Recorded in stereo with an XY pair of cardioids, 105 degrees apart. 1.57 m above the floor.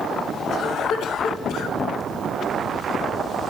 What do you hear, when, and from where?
0.5 s a cough: 70° left, 1.9 m